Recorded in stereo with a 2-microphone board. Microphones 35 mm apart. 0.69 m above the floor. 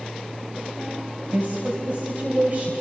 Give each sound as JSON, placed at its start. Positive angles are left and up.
{"t": 1.3, "sound": "a woman speaking", "side_deg": -40, "distance_m": 3.0}